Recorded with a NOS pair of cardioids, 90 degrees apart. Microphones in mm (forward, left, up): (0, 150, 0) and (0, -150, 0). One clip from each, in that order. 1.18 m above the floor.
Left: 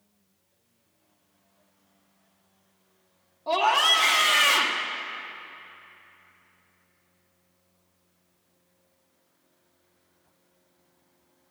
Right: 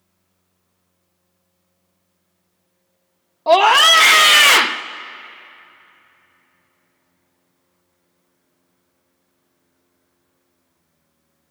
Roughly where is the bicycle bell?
No bicycle bell in this recording.